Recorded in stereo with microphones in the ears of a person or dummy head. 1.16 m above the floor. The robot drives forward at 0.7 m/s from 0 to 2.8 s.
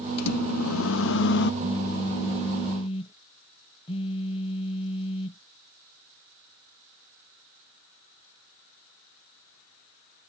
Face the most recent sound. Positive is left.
turn(degrees=30)  # may be behind; listen again after turning